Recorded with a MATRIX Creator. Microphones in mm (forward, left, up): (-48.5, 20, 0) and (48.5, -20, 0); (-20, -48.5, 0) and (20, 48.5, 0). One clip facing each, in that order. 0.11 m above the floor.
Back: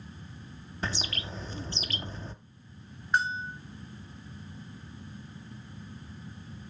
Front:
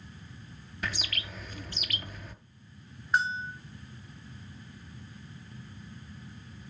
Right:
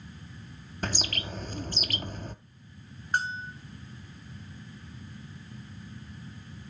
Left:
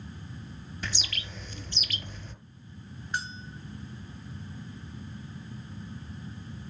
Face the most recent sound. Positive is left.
turn(degrees=-110)